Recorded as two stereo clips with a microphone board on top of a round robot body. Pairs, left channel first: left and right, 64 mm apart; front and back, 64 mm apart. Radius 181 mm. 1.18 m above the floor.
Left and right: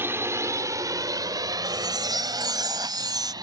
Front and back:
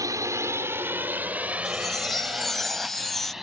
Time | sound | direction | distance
0.0 | a drone | 145° right | ?
1.6 | a chime | 85° right | ?